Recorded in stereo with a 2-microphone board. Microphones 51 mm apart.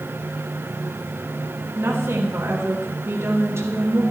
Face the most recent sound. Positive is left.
turn(degrees=-65)  # may be behind; listen again after turning